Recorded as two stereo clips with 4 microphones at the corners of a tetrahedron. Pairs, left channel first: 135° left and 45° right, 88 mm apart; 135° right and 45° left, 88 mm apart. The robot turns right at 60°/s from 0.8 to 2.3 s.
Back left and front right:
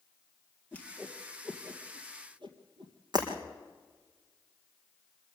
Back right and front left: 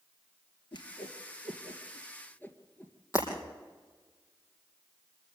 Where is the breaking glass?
85° right, 5 m.